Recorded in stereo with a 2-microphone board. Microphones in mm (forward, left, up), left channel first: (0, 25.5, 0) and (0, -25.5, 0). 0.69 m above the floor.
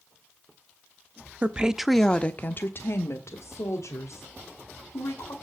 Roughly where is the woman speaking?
Right.